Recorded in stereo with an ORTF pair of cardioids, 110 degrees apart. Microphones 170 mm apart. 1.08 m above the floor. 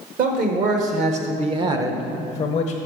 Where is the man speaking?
60° right, 1.8 m; by 2.8 s 80° left, 0.7 m.